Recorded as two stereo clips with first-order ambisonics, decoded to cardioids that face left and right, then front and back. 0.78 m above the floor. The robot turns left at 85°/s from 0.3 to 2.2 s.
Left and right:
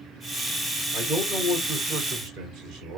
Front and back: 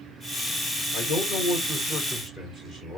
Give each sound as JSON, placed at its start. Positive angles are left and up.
{"t": 0.9, "sound": "a man speaking", "azimuth_deg": 15, "distance_m": 2.5}